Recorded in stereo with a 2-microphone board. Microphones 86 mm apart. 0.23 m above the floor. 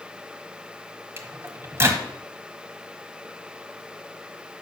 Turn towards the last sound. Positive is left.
turn(degrees=-30)  # may be behind; listen again after turning